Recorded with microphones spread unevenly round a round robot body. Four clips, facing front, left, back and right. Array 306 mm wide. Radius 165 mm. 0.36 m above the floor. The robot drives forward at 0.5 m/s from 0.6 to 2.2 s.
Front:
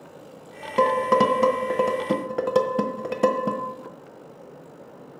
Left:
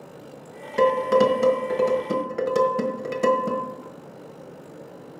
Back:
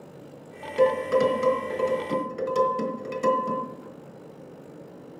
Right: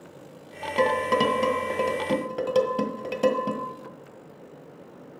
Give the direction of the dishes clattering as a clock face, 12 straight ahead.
12 o'clock.